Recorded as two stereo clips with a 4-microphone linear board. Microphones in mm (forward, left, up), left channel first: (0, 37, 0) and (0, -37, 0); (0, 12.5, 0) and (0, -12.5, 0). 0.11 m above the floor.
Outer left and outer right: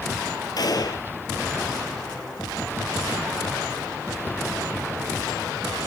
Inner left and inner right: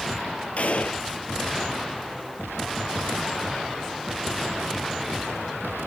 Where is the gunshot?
60° left (ahead or behind), 0.8 m.